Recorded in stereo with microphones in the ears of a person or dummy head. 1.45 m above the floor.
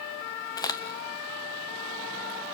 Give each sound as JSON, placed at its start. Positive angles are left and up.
{"t": 0.6, "sound": "a crack", "side_deg": 25, "distance_m": 0.7}